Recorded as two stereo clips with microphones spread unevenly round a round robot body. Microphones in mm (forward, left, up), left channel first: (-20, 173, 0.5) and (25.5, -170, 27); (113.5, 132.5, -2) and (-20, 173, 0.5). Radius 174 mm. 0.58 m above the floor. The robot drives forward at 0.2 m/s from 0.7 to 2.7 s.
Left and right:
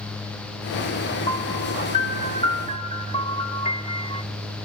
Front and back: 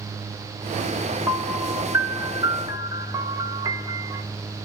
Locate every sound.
1.3 s a piano: 115° left, 1.1 m; by 4.2 s 140° left, 1.2 m